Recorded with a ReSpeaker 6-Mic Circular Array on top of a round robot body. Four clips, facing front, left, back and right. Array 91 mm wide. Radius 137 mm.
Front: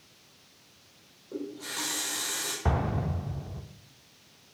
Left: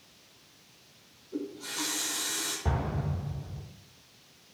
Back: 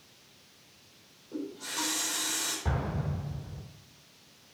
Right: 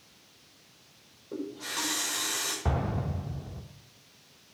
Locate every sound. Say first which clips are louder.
1.3 s a running tap: right 1 dB, even; 75° right, 5 m
2.6 s an explosion: right 1 dB, front 5 dB; 15° right, 0.8 m